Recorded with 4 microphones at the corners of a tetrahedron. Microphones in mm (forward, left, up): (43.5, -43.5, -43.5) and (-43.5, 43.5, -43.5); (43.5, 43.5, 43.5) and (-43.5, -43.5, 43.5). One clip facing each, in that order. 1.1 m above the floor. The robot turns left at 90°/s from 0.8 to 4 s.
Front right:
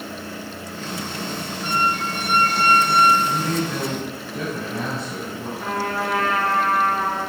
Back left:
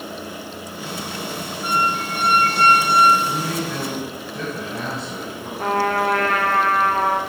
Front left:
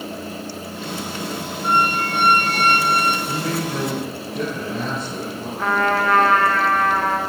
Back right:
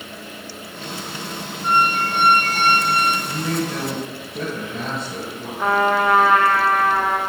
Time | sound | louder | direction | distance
1.6 | a squeak | back left 1 dB, back right 1 dB | 145° right | 2 m
3.3 | a man speaking | front right 1 dB, even | 75° left | 3 m
5.6 | a trumpet | back left 6 dB, back right 2 dB | 145° left | 0.6 m